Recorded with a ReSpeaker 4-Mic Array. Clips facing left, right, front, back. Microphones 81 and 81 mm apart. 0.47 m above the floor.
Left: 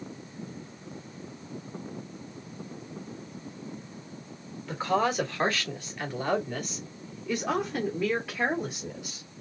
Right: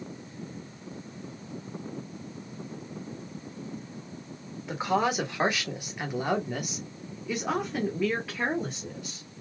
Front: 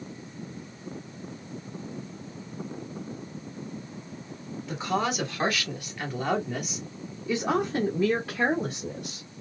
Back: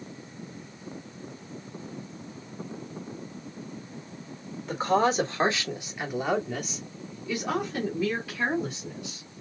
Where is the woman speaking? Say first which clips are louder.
Even, back 5 dB; 160° right, 1.5 m; by 9.3 s 5° left, 1.9 m.